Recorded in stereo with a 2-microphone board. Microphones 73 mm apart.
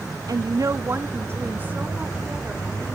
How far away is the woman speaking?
About 0.5 m.